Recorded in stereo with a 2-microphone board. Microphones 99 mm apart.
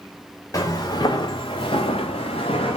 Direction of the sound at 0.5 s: 35° left (ahead or behind).